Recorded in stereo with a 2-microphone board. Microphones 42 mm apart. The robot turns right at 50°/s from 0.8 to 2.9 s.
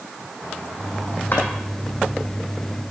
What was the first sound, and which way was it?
A drawer, 50° left (ahead or behind).